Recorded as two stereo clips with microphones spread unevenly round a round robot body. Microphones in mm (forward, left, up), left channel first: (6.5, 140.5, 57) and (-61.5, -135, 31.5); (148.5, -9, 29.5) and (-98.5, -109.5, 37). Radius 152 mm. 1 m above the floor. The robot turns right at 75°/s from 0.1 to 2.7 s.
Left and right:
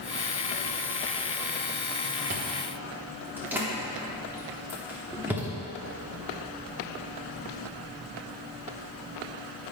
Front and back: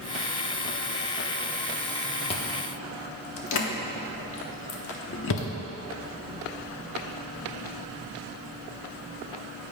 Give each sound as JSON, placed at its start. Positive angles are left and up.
{"t": 2.3, "sound": "chewing", "azimuth_deg": -50, "distance_m": 1.0}